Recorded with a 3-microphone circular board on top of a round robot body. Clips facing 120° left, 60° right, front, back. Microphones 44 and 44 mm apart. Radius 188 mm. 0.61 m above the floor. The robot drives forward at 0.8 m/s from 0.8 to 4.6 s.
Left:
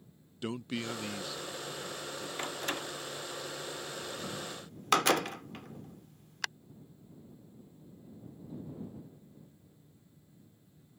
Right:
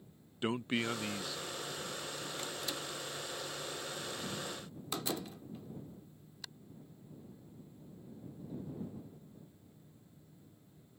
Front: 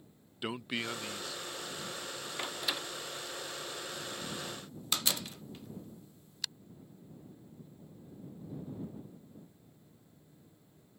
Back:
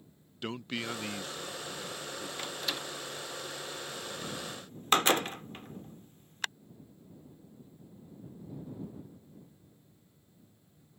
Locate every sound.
0.4 s a man speaking: 75° right; by 2.3 s 170° right
2.4 s a door slam: 75° left; by 6.5 s 135° left